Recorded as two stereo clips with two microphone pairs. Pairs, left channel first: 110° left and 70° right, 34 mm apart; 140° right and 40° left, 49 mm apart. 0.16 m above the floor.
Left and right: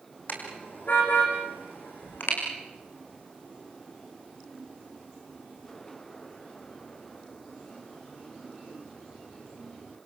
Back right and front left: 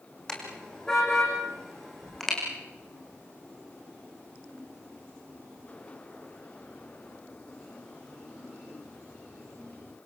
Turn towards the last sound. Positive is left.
turn(degrees=135)